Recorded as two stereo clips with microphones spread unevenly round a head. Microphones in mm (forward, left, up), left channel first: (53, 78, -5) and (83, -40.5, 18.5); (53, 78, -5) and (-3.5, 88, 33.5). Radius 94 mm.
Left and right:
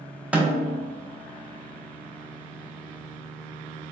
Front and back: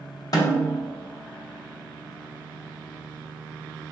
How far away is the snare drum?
About 0.7 m.